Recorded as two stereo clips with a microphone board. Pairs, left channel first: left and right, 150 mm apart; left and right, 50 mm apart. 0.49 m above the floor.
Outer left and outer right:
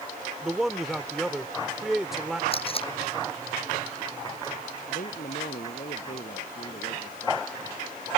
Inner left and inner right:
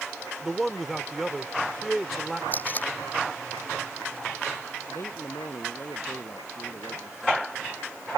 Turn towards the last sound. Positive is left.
turn(degrees=60)  # may be behind; listen again after turning